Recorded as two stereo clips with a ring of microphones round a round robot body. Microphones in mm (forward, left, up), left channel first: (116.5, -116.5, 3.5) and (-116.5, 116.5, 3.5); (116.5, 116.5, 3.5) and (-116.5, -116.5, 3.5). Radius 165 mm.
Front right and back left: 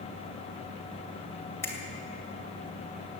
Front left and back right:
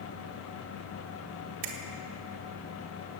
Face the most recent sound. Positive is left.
turn(degrees=-125)